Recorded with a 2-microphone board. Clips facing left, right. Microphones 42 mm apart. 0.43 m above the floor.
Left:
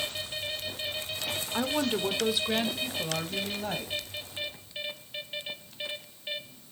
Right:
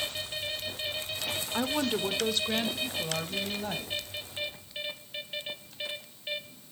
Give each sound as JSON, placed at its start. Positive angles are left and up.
{"t": 1.5, "sound": "a woman speaking", "side_deg": 0, "distance_m": 0.8}